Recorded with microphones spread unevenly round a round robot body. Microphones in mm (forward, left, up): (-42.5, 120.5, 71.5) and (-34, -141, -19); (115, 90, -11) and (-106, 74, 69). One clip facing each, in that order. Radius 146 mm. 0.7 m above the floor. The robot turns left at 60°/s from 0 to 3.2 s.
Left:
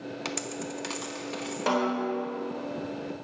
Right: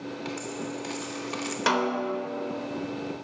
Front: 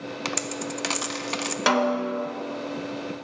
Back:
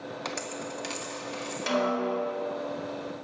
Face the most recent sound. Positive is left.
turn(degrees=-115)